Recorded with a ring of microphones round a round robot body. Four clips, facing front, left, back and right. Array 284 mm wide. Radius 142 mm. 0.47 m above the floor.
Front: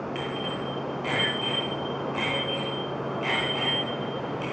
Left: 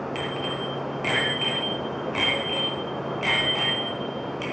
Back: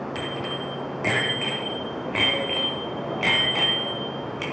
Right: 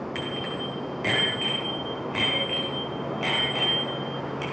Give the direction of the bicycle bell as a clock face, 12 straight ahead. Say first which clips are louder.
Left 2 dB, back 1 dB; 5 o'clock.